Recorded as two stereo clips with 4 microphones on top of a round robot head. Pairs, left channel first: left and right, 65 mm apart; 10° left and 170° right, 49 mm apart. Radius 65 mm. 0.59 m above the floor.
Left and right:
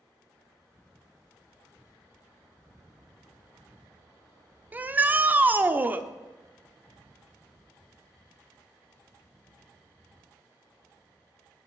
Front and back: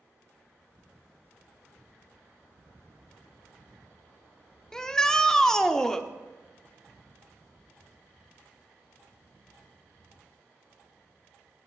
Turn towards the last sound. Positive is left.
turn(degrees=-60)